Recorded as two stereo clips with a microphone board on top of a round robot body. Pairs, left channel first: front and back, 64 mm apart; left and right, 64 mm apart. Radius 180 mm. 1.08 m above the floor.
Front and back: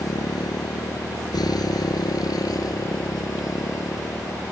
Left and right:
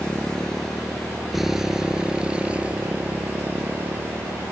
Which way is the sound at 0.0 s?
15° left.